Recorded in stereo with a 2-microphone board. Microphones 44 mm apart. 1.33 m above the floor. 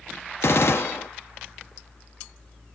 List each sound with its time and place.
0.4 s a gunshot: 60° left (ahead or behind), 1.0 m